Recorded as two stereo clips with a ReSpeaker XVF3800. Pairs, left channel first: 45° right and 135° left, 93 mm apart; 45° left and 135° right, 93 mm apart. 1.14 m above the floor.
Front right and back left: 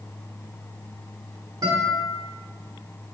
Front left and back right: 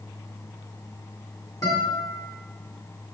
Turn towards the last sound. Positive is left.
turn(degrees=90)